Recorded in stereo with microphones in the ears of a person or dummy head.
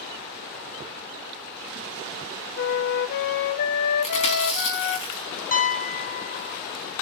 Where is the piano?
40° left (ahead or behind), 0.7 m.